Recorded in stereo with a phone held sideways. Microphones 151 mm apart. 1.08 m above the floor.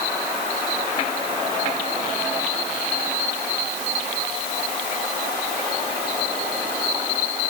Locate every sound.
Only background noise.